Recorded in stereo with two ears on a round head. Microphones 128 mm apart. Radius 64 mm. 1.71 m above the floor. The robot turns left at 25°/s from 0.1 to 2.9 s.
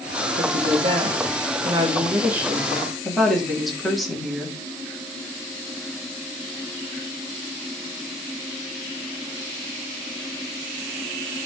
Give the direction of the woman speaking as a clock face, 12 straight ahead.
4 o'clock.